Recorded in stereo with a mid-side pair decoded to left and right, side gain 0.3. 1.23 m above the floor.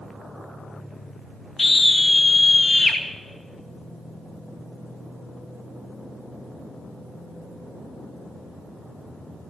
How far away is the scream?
About 2.0 m.